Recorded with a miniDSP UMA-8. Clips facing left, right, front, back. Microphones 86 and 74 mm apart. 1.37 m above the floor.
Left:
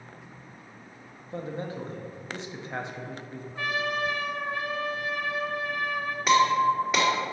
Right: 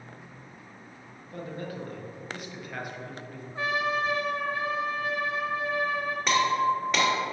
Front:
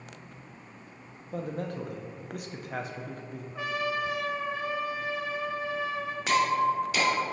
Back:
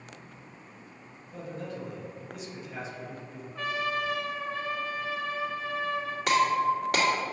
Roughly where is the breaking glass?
Behind.